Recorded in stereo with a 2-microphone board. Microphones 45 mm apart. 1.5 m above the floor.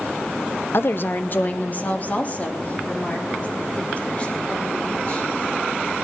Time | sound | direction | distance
0.7 | a woman speaking | 60° left (ahead or behind) | 0.8 m